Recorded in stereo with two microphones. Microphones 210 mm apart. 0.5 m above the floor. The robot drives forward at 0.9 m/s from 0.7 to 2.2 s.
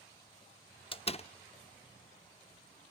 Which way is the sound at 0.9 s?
25° left (ahead or behind).